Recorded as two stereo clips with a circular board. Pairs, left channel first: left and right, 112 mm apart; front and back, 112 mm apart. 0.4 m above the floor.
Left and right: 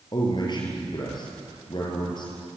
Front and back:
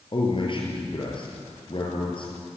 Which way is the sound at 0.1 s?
40° left.